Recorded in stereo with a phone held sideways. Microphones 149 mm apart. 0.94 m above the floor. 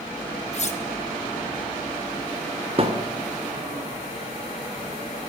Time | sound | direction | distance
0.5 | cutlery clinking | 50° left (ahead or behind) | 1.1 m
2.8 | a thud | 40° right (ahead or behind) | 1.4 m